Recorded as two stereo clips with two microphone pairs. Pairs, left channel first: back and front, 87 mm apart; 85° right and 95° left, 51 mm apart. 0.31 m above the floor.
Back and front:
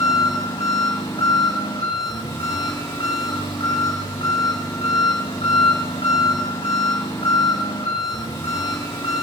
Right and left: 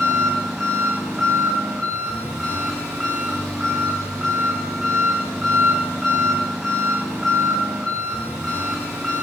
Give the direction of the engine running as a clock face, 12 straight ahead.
6 o'clock.